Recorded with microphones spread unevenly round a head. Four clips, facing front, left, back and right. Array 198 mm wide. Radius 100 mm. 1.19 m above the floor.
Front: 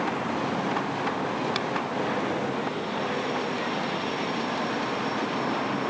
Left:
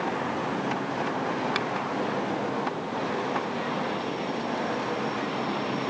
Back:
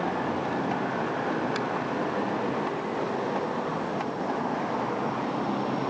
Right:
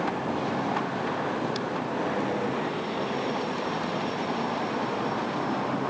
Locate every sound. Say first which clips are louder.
1.6 s a finger snap: left 2 dB, even; 65° left